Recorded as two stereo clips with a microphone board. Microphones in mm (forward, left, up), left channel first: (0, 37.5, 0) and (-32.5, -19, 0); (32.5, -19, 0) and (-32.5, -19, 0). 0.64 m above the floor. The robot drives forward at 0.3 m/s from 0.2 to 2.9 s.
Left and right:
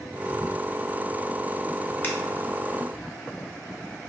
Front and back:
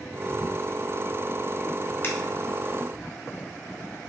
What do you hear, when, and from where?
2.0 s a finger snap: 25° left, 0.8 m